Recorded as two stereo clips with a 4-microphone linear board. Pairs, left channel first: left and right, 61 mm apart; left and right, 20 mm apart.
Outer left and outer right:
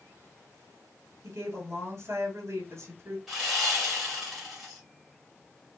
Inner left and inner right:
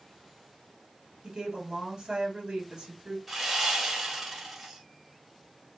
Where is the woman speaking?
50° right (ahead or behind), 2.5 m.